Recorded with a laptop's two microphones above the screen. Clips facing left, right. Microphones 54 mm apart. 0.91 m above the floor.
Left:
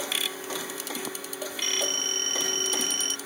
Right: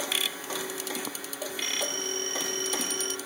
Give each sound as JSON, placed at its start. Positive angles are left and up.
{"t": 1.6, "sound": "a phone ringing", "side_deg": 50}